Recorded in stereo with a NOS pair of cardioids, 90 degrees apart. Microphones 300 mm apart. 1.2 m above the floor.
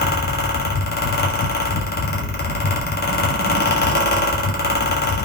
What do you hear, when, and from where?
0.0 s a fan: 30° left, 1.4 m